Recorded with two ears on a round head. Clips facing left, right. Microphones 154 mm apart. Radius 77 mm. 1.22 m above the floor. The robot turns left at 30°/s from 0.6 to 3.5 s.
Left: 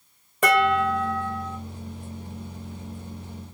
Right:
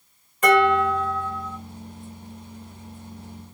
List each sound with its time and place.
0.4 s dishes clattering: 55° left (ahead or behind), 1.4 m; by 1.6 s 30° left (ahead or behind), 1.4 m